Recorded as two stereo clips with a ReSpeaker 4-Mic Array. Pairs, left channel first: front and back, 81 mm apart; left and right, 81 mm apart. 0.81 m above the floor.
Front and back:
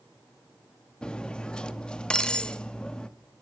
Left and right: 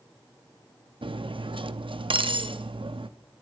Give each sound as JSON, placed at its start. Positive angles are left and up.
{"t": 1.0, "sound": "cutlery clinking", "azimuth_deg": -80, "distance_m": 0.5}